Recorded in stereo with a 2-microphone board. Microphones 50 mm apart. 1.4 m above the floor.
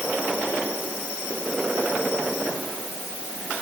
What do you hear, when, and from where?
Only background noise.